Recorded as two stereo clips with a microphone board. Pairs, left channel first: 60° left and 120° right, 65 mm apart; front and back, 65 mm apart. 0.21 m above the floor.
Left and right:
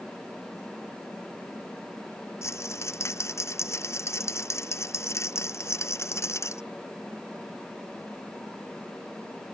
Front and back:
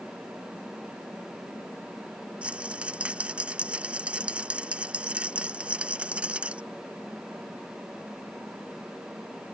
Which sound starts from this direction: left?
A rattle, at 2.4 s.